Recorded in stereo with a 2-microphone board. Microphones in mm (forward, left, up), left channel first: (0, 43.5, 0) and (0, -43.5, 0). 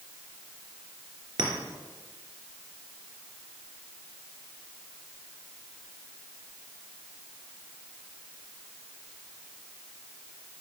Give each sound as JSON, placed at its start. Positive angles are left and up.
{"t": 1.4, "sound": "a clink", "side_deg": -60, "distance_m": 3.0}